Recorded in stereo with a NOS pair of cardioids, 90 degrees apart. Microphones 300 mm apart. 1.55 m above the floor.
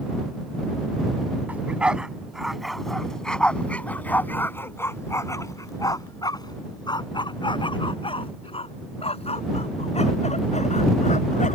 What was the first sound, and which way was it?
A dog barking, 5° right.